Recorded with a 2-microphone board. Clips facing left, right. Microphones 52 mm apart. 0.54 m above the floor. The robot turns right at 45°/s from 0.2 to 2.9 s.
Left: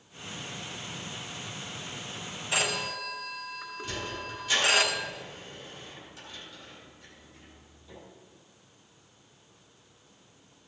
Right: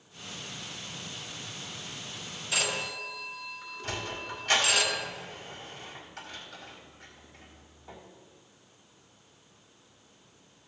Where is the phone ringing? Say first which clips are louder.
Left 2 dB; 30° left (ahead or behind), 2.5 m; by 4.8 s 45° left (ahead or behind), 2.5 m.